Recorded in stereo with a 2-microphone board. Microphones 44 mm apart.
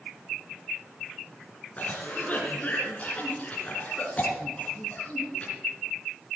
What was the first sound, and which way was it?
A cough, 30° left (ahead or behind).